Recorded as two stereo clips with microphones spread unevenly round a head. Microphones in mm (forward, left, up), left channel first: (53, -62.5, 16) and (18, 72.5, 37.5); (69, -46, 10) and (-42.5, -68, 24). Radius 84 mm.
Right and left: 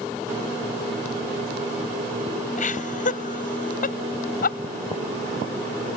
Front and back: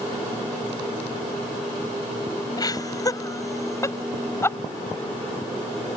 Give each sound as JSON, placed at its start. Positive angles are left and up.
{"t": 2.6, "sound": "laughter", "azimuth_deg": -45}